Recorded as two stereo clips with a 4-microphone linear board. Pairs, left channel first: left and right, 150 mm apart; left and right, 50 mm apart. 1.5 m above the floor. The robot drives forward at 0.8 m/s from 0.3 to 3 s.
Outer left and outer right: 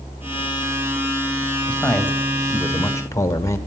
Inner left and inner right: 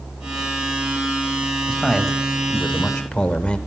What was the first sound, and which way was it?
A man speaking, 10° left (ahead or behind).